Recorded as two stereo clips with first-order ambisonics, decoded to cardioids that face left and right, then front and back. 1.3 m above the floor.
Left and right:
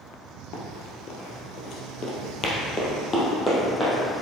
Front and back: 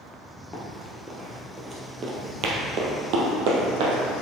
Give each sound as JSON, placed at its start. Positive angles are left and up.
{"t": 0.5, "sound": "running footsteps", "azimuth_deg": 75, "distance_m": 2.0}